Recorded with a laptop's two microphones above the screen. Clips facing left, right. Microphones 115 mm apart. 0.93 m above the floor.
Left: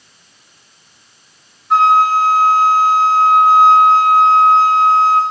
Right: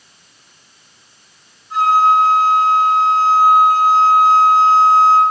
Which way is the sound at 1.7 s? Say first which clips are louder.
Left 1 dB; 70° left (ahead or behind).